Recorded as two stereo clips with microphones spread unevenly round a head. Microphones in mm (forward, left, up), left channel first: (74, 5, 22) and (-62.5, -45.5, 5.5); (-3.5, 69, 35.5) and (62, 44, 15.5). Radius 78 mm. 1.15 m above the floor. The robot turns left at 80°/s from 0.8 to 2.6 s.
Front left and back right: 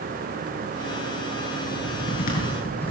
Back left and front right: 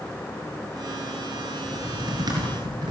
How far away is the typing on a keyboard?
About 9 m.